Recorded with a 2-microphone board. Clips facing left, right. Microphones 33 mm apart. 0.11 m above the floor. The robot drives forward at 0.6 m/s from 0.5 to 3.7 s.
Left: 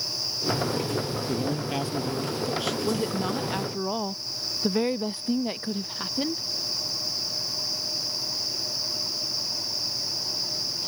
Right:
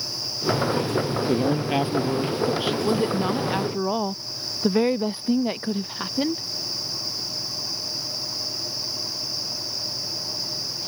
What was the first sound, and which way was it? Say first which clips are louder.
A man speaking: right 7 dB; 35° right (ahead or behind).